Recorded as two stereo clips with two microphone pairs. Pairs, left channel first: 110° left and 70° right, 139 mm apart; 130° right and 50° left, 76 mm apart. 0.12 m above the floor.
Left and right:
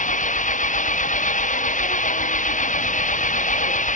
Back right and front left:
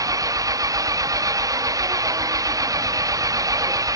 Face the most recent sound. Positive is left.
turn(degrees=90)